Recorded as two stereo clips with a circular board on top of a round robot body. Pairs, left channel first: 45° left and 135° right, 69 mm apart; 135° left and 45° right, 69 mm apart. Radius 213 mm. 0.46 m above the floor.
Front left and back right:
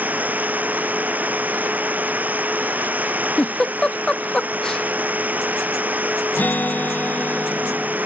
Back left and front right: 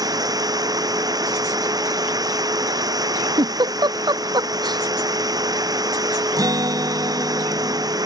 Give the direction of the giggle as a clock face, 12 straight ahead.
1 o'clock.